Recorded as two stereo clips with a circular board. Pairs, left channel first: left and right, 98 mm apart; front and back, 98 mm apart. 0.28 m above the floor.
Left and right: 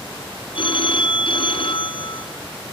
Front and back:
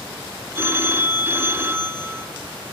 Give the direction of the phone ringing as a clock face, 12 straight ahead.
8 o'clock.